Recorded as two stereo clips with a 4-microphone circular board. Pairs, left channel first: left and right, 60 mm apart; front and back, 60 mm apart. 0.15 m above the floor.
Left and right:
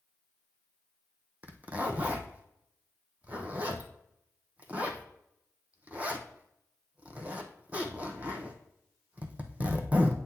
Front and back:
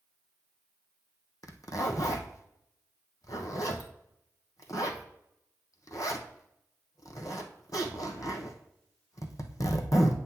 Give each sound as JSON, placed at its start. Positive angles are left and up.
{"t": 1.4, "sound": "a zipper", "azimuth_deg": -25, "distance_m": 1.4}